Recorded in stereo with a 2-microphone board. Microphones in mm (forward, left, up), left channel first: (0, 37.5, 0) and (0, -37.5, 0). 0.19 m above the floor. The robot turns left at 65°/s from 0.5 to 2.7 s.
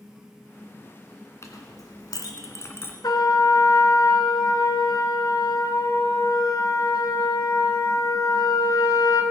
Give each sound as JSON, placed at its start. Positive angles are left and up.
{"t": 1.4, "sound": "a clink", "side_deg": 40, "distance_m": 1.6}
{"t": 3.0, "sound": "a trumpet", "side_deg": 60, "distance_m": 1.5}